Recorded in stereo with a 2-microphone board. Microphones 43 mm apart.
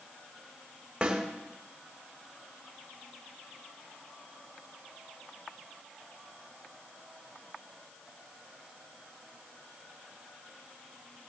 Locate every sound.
1.0 s a snare drum: 30° right (ahead or behind), 2.5 m